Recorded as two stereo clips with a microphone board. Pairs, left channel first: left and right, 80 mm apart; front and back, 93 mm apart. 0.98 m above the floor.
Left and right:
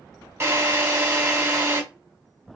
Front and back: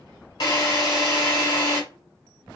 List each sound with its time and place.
0.4 s a drill: 35° right, 1.6 m